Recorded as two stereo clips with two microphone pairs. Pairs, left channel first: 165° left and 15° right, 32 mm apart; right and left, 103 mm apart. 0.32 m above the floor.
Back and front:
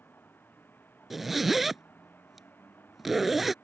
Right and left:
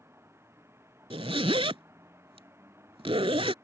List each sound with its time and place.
0.0 s a vehicle: 155° left
1.1 s a zipper: 65° left